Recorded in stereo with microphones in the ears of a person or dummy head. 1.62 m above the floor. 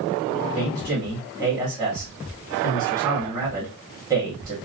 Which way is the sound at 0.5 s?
20° right (ahead or behind).